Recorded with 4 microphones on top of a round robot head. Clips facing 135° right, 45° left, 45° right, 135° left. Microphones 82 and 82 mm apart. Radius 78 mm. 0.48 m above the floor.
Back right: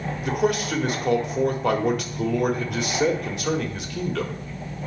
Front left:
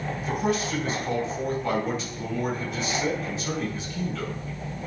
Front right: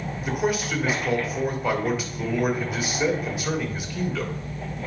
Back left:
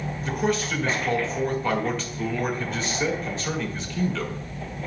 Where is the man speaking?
125° right, 1.9 m.